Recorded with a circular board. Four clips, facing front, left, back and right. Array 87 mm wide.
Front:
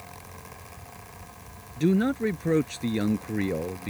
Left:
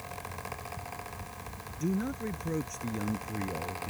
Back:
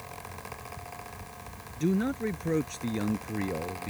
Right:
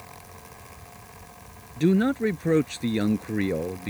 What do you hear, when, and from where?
1.8 s a man speaking: 65° right